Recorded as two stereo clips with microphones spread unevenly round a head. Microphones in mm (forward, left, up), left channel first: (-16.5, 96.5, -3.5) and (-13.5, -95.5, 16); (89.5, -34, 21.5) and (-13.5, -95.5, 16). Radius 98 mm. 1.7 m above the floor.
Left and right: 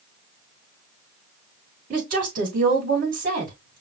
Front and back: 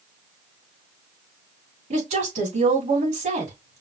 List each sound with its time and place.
1.9 s a woman speaking: 135° right, 4 m